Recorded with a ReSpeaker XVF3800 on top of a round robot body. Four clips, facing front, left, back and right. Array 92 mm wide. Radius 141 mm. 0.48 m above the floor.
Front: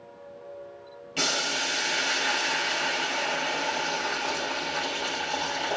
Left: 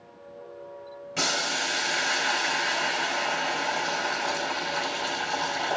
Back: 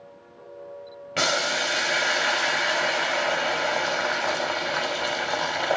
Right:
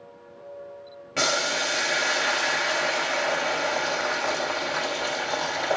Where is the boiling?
150° right, 2.5 m.